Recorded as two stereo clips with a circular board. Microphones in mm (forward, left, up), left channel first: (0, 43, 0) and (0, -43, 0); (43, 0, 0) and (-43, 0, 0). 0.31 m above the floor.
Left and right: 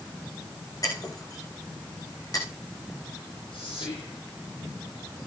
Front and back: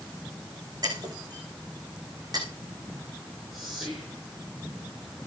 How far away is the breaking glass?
About 8 m.